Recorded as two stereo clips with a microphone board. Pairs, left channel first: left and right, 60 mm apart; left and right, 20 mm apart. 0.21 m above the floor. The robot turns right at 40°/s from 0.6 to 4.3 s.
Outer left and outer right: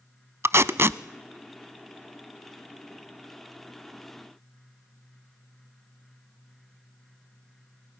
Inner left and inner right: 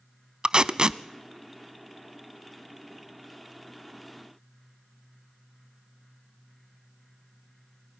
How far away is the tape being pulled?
About 0.5 m.